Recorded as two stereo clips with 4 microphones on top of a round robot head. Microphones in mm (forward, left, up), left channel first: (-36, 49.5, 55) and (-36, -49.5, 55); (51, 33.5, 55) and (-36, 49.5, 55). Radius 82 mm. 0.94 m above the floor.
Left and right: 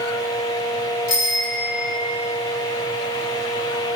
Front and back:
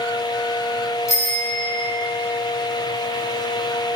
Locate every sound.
1.1 s a bicycle bell: 45° left, 3 m